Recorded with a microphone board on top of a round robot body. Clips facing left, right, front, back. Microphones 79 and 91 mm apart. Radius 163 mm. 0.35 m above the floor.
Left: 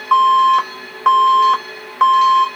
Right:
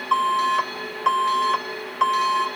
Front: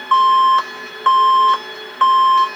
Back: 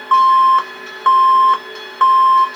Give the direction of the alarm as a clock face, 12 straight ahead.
8 o'clock.